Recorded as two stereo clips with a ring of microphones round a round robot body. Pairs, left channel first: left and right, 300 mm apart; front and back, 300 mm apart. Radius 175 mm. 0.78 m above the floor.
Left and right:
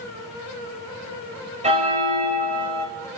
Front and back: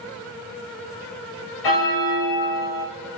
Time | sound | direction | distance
1.6 | a bell | 20° right | 1.8 m